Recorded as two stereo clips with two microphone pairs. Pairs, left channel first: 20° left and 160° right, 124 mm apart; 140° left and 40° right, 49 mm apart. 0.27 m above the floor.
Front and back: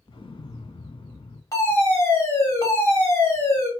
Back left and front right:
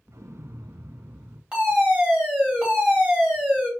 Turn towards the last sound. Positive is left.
turn(degrees=0)